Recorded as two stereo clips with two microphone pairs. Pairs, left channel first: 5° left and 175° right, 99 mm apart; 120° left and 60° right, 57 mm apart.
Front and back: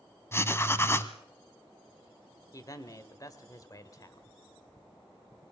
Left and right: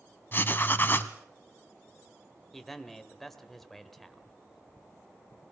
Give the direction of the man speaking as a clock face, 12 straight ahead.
11 o'clock.